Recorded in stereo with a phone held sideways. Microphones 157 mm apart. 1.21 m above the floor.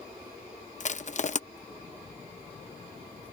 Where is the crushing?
50° left (ahead or behind).